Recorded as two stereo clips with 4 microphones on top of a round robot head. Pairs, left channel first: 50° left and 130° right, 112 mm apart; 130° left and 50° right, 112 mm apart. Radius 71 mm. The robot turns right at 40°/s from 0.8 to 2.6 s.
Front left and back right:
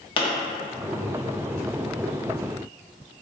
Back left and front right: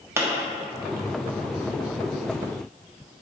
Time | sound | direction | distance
0.2 | a pop | 15° left | 0.5 m